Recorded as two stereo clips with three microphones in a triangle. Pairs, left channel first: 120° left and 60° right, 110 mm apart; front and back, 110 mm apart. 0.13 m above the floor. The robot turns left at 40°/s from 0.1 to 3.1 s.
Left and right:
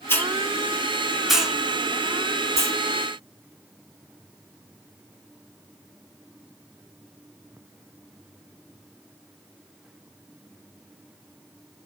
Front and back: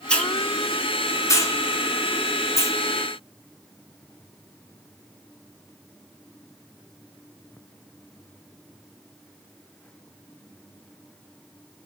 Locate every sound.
0.1 s a hiss: 75° left, 0.7 m; by 2.8 s 35° right, 0.7 m